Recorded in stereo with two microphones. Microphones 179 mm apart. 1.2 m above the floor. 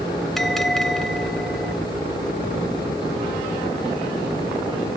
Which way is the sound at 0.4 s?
Centre (ahead or behind).